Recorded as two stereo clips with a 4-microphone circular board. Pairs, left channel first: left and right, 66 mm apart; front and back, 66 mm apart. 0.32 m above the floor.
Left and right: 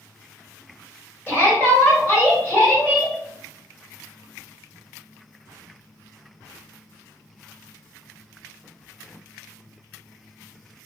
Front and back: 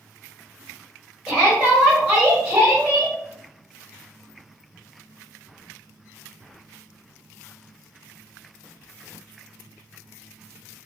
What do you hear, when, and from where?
1.3 s a shout: 115° left, 1.6 m